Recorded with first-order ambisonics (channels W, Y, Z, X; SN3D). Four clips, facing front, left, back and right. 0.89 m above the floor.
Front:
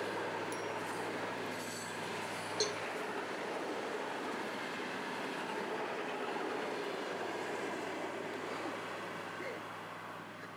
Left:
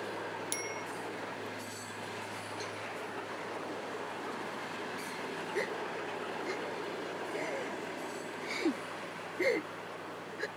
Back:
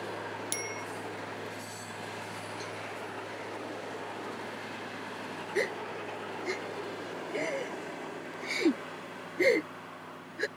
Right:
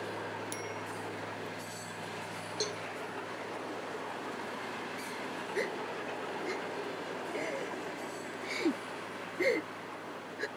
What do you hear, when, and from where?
0.5 s a bicycle bell: 155° left
2.6 s a cowbell: 40° right
5.5 s a gasp: 175° right